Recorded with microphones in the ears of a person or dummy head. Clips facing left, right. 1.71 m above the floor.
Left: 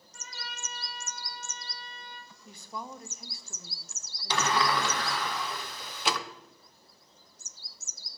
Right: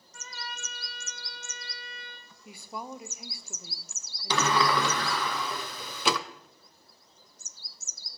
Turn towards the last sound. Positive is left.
turn(degrees=-70)  # may be behind; listen again after turning